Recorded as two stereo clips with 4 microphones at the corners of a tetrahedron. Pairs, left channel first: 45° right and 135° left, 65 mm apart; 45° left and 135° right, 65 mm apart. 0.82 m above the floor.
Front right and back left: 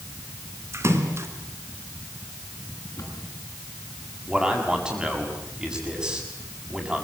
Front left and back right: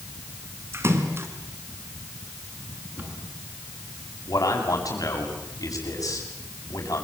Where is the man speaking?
60° left, 7.5 m.